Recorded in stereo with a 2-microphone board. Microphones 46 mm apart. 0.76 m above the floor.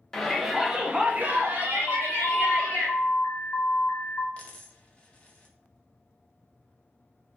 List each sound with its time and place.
0.1 s a shout: 5° left (ahead or behind), 0.7 m; by 2.9 s 55° right (ahead or behind), 1.2 m
1.9 s an alarm: 50° left (ahead or behind), 1.0 m
4.4 s a dropped coin: 25° left (ahead or behind), 0.6 m